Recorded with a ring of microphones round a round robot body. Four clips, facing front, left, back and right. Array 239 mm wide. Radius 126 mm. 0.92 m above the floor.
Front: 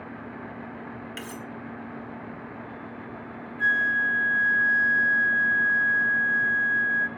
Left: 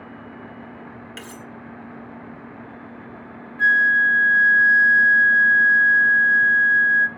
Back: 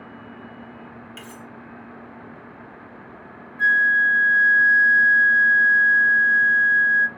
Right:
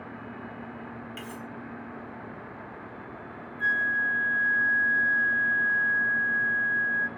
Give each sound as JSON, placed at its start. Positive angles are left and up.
{"t": 1.2, "sound": "cutlery clinking", "azimuth_deg": 65, "distance_m": 0.8}
{"t": 3.6, "sound": "a flute", "azimuth_deg": 115, "distance_m": 0.6}